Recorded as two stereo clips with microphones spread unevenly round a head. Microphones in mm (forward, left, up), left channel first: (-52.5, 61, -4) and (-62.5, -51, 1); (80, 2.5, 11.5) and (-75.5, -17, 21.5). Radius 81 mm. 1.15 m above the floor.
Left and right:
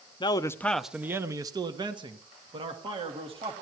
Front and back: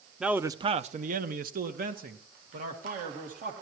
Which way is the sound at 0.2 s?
100° left.